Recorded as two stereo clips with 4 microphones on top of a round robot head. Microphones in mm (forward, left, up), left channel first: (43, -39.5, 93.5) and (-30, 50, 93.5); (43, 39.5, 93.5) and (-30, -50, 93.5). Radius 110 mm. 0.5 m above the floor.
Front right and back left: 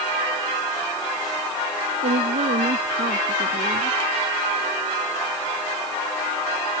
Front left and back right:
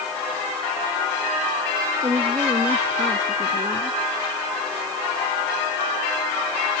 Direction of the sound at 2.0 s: 155° left.